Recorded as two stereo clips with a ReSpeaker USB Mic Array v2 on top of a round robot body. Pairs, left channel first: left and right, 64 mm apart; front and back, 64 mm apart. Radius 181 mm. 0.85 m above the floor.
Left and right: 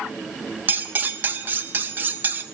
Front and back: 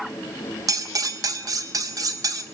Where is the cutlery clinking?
150° right, 1.4 m.